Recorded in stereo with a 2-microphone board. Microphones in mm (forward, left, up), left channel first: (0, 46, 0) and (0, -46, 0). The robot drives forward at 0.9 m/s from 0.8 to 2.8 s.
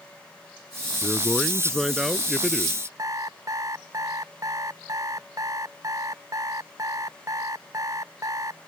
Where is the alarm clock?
40° right (ahead or behind).